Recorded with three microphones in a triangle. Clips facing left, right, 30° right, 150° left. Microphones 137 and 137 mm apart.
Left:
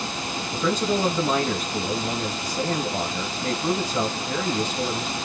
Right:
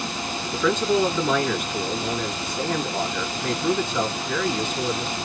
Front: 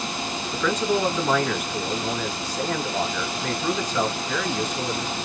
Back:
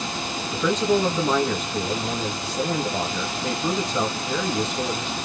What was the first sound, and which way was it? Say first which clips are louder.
A man speaking: right 3 dB, back 2 dB; 105° left.